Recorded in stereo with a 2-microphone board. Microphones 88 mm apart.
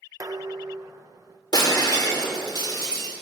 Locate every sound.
0.2 s dishes clattering: 40° right (ahead or behind), 0.7 m
1.5 s breaking glass: 55° left (ahead or behind), 2.5 m